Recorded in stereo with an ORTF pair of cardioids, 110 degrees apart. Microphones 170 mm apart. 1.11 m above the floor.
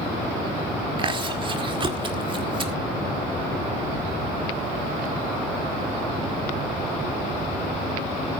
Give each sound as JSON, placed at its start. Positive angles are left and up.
{"t": 1.0, "sound": "chewing", "azimuth_deg": -30, "distance_m": 2.0}